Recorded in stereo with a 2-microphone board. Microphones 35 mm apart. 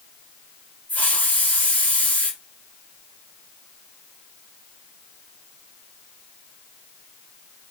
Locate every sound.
0.9 s a hiss: 50° left (ahead or behind), 1.4 m